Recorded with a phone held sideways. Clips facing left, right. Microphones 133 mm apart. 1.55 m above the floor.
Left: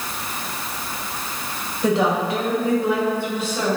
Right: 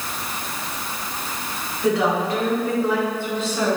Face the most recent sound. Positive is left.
turn(degrees=10)  # may be behind; listen again after turning